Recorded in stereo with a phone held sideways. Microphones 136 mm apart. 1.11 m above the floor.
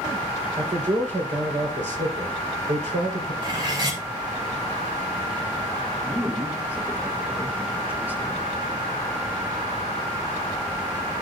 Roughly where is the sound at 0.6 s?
Right.